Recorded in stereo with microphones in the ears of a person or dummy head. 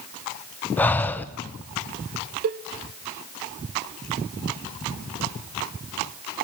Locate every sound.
0.8 s breathing: 10° left (ahead or behind), 0.7 m
2.4 s a cowbell: 40° right (ahead or behind), 0.6 m